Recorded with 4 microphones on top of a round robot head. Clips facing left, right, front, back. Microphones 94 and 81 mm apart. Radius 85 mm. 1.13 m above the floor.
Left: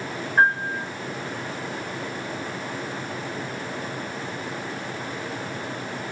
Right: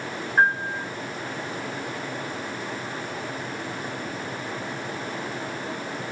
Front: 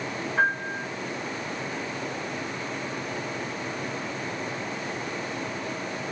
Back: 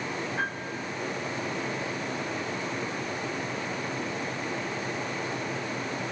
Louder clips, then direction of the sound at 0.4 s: Left 1 dB, front 7 dB; straight ahead.